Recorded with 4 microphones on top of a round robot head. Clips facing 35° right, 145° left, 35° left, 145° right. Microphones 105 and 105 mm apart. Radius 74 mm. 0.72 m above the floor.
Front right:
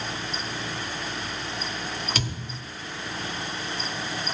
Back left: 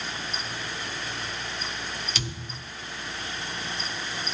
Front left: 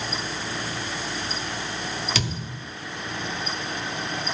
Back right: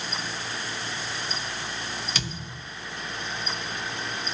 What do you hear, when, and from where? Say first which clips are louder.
2.1 s a thud: front right 4 dB, front left 5 dB; 15° left, 1.0 m